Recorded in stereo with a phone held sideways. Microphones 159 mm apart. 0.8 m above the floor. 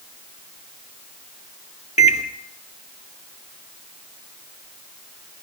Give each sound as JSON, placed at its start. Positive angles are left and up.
{"t": 2.0, "sound": "a microwave", "side_deg": 50, "distance_m": 1.6}